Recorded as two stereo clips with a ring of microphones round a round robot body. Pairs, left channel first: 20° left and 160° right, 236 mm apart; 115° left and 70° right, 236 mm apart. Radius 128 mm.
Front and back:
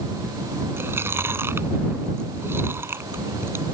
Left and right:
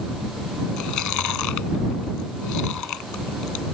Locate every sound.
0.8 s chewing: 120° left